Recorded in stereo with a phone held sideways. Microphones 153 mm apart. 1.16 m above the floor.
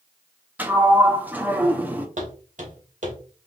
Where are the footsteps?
55° right (ahead or behind), 2 m.